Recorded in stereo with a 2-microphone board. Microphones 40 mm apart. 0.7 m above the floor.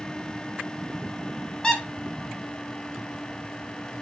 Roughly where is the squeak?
Centre.